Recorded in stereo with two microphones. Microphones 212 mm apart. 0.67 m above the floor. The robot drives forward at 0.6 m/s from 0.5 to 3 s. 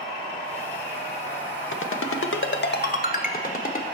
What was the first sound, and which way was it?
A ringtone, 65° left (ahead or behind).